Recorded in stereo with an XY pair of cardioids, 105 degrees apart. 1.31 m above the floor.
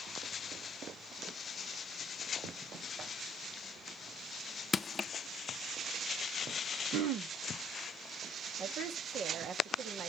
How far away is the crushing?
About 0.6 m.